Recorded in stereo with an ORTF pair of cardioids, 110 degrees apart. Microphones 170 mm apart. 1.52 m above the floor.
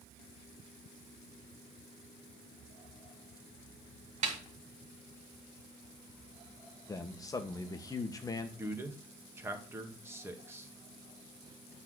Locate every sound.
4.2 s a snare drum: 45° right, 2 m
6.9 s a man speaking: 20° left, 1.6 m
8.6 s a man speaking: 15° right, 1.9 m